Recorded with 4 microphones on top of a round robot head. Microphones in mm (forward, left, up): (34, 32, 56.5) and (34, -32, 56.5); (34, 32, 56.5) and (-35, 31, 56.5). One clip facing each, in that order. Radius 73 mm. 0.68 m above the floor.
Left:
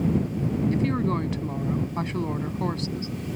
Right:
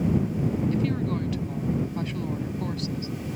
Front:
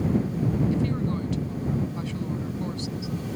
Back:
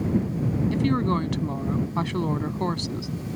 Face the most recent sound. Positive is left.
turn(degrees=155)